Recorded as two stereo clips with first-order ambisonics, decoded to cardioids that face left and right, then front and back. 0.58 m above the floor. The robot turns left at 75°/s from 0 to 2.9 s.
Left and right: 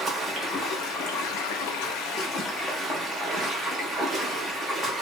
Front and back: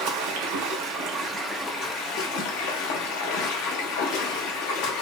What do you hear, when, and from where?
0.0 s running water: 160° right, 0.7 m; by 5.0 s 15° right, 0.7 m